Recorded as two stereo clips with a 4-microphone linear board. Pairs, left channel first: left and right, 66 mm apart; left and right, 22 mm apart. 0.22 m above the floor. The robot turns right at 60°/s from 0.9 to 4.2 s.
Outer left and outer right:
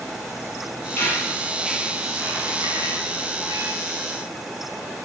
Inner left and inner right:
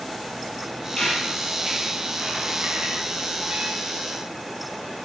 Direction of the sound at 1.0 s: 35° left (ahead or behind).